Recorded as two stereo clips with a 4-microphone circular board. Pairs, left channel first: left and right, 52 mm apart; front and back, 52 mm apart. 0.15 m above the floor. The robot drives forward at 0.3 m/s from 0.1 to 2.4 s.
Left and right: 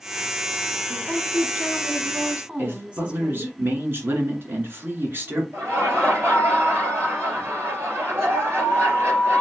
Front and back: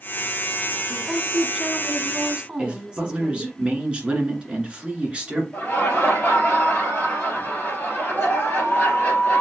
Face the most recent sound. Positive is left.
turn(degrees=-50)